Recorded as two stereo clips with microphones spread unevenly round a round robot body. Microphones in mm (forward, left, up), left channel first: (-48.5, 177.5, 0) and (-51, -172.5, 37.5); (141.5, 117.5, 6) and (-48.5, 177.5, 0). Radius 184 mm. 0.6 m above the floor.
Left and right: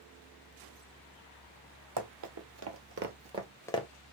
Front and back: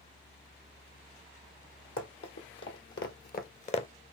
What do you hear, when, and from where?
2.0 s running footsteps: 55° right, 1.6 m; by 3.9 s 25° left, 0.6 m